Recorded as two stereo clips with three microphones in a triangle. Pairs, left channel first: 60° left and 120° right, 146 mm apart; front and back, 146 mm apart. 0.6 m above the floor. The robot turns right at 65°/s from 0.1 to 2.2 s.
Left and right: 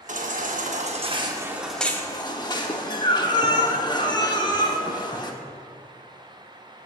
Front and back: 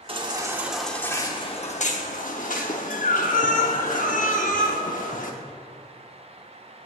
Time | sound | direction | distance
0.1 | a baby crying | 135° right | 0.8 m